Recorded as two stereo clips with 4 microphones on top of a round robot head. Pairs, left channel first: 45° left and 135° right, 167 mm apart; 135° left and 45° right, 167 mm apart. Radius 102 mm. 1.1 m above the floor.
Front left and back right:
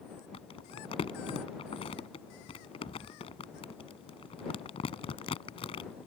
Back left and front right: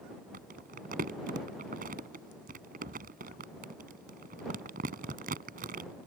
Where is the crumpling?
10° right.